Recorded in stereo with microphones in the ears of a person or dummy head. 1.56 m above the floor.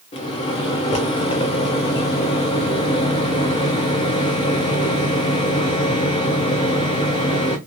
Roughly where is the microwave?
Left.